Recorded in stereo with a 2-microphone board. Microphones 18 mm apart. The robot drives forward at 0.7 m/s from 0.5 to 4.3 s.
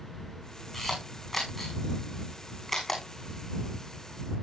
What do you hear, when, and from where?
0.7 s a camera shutter: 5° left (ahead or behind), 7.5 m